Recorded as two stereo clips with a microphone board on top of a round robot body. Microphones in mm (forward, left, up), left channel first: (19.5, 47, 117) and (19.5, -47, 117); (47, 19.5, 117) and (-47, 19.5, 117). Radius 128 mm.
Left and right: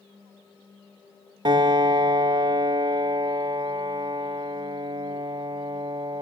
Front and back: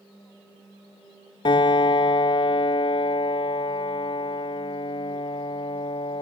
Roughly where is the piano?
Ahead right.